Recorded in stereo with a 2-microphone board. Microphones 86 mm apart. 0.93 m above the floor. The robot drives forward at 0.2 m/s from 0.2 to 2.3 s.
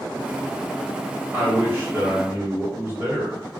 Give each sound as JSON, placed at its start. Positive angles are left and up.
{"t": 1.3, "sound": "a man speaking", "side_deg": -25, "distance_m": 1.3}